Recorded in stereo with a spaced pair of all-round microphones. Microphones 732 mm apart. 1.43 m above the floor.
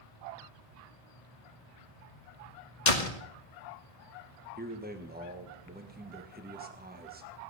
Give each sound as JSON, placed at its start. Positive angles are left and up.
{"t": 2.9, "sound": "a door slam", "side_deg": 75, "distance_m": 1.7}
{"t": 4.6, "sound": "a man speaking", "side_deg": -15, "distance_m": 1.4}